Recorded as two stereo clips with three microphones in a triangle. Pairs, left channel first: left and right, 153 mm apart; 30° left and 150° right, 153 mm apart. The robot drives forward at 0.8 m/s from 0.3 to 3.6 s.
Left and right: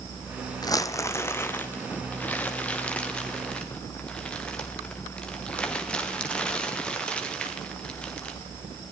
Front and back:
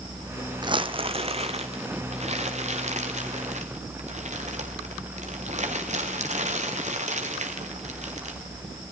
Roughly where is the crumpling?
Behind left.